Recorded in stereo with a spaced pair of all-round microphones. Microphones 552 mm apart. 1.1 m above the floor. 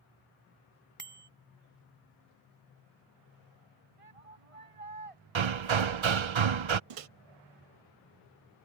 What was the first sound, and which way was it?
A bicycle bell, 65° right (ahead or behind).